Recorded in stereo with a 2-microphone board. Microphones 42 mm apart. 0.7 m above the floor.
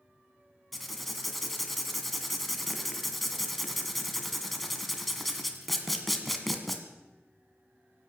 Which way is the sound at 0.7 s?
Centre (ahead or behind).